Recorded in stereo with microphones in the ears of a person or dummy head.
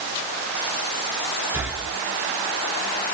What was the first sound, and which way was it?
Breathing, 10° right (ahead or behind).